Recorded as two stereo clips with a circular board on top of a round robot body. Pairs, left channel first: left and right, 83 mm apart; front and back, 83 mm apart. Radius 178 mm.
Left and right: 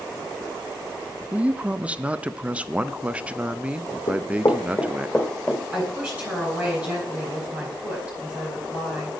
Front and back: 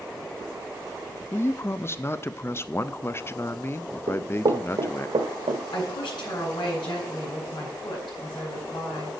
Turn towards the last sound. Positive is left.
turn(degrees=-20)